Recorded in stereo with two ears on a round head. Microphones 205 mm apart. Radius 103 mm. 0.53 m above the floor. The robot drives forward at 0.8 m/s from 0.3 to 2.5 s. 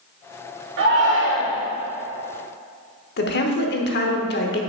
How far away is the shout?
About 2.0 m.